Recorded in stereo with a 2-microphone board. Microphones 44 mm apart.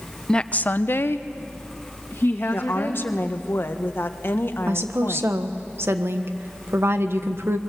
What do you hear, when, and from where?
0.3 s a woman speaking: 15° left (ahead or behind), 0.7 m; by 3.0 s 55° left (ahead or behind), 2.5 m
2.5 s a woman speaking: 55° left (ahead or behind), 1.4 m
4.7 s a woman speaking: 60° right (ahead or behind), 1.4 m